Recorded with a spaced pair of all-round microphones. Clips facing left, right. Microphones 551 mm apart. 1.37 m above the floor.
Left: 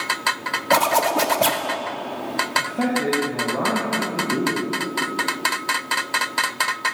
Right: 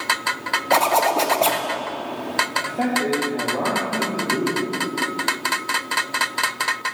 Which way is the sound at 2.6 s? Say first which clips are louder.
Left 1 dB; 30° left (ahead or behind).